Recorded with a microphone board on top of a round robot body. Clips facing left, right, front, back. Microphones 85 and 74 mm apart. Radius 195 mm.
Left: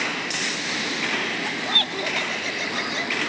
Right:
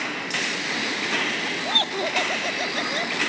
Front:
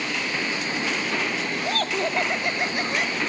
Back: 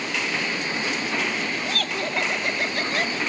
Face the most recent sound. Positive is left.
turn(degrees=-80)